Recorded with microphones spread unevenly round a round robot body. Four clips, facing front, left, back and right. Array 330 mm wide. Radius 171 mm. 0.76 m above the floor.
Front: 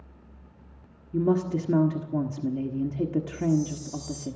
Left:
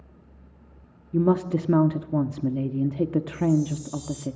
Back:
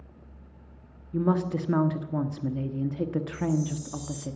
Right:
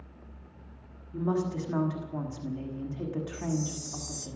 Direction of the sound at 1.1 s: 70° left.